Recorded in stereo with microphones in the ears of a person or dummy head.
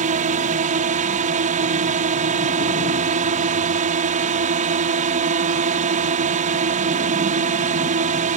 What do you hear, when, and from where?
0.0 s a drone: 35° right (ahead or behind)